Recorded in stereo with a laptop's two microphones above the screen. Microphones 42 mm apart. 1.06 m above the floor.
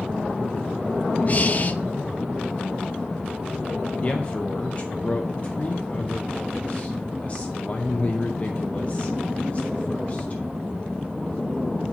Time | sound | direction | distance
1.3 | breathing | 40° left (ahead or behind) | 0.5 m
4.0 | a man speaking | 30° left (ahead or behind) | 0.6 m